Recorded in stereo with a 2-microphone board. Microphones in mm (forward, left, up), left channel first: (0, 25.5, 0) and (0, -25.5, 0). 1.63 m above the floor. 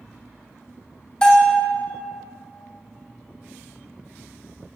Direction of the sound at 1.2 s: 15° left (ahead or behind).